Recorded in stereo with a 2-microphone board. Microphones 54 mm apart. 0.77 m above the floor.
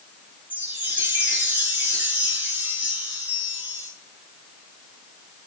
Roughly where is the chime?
Right.